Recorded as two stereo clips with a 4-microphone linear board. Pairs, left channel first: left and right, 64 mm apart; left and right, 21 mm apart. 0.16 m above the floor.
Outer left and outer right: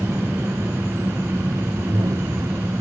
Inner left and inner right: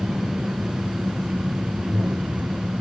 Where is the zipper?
80° right, 0.9 m.